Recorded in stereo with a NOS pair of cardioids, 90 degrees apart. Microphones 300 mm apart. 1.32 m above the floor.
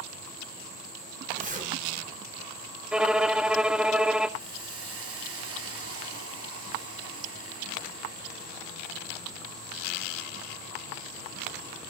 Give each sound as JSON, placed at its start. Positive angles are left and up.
{"t": 1.4, "sound": "a zipper", "azimuth_deg": -25, "distance_m": 6.0}
{"t": 2.9, "sound": "a violin", "azimuth_deg": -5, "distance_m": 0.9}
{"t": 4.4, "sound": "a hiss", "azimuth_deg": -50, "distance_m": 6.0}